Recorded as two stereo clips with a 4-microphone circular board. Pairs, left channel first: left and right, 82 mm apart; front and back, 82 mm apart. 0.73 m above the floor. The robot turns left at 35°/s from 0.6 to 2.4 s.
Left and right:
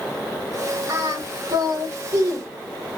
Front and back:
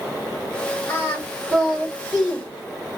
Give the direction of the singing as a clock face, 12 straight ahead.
2 o'clock.